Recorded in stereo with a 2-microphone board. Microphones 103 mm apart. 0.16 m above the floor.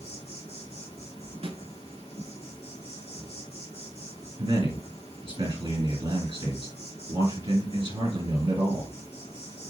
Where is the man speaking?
55° right (ahead or behind), 3 m.